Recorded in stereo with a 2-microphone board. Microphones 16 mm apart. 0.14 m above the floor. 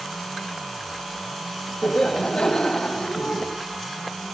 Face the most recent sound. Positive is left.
turn(degrees=75)  # may be behind; listen again after turning